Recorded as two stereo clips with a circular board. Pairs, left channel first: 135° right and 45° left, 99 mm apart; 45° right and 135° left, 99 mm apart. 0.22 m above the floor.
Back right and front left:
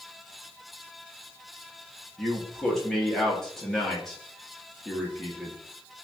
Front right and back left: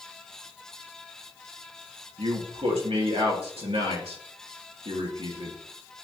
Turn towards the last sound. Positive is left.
turn(degrees=140)